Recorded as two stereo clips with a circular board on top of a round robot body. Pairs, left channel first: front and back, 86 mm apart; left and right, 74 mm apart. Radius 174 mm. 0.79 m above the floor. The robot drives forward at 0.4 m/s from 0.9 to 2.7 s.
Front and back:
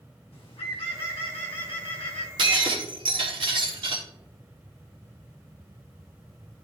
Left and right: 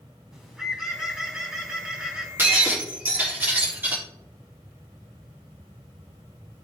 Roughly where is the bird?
Ahead.